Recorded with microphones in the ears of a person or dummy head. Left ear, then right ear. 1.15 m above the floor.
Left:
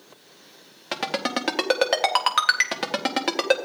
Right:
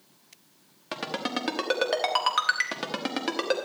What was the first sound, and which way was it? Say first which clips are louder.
A ringtone: left 5 dB; 15° left (ahead or behind).